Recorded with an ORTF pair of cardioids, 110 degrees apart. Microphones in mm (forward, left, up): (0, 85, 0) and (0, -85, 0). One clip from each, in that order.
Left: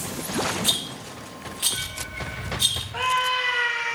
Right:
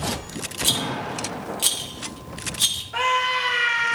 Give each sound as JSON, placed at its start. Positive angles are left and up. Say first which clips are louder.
{"t": 0.6, "sound": "a rattle", "louder": "right 2 dB", "azimuth_deg": -40, "distance_m": 2.5}
{"t": 2.9, "sound": "a scream", "louder": "right 3 dB", "azimuth_deg": -70, "distance_m": 3.5}